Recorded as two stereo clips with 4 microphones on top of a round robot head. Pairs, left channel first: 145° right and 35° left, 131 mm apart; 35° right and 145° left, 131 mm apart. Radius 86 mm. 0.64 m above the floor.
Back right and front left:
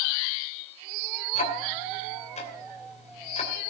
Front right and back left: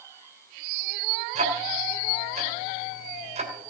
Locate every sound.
1.4 s ticking: straight behind, 3 m